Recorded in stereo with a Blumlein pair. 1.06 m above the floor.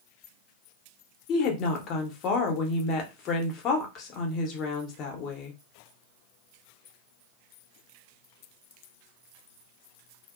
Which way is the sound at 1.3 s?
35° left.